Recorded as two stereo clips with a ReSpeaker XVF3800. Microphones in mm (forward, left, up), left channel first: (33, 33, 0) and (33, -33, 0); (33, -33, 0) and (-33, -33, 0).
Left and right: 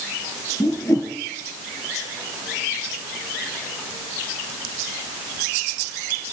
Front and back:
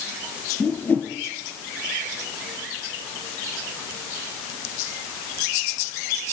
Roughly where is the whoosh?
Ahead left.